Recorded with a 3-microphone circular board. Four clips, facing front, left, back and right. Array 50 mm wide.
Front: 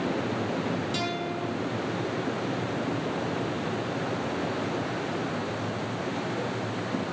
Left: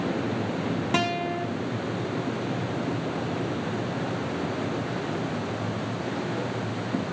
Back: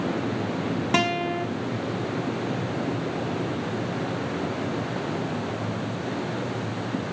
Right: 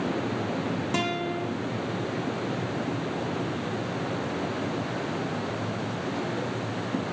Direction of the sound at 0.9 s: 160° left.